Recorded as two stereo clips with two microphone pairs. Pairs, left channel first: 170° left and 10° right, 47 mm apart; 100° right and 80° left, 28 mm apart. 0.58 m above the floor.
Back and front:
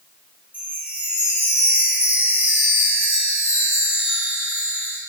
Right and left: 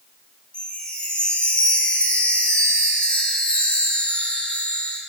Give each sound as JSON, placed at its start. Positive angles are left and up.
{"t": 0.5, "sound": "a chime", "azimuth_deg": -65, "distance_m": 2.5}